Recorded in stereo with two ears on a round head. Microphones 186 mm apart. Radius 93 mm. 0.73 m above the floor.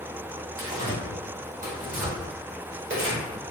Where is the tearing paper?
40° right (ahead or behind), 1.1 m.